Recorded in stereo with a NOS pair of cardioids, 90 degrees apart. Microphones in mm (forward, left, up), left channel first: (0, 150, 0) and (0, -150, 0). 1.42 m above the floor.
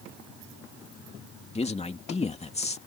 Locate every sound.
1.6 s a man speaking: 20° left